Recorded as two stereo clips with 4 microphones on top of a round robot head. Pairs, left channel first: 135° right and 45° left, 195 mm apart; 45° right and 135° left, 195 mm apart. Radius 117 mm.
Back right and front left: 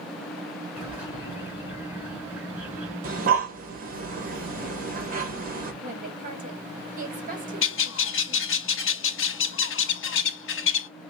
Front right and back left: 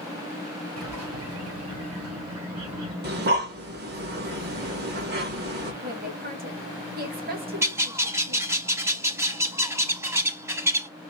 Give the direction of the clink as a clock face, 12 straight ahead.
No clink in this recording.